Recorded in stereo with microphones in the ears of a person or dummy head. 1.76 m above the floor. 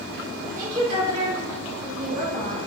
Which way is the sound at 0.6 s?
85° right.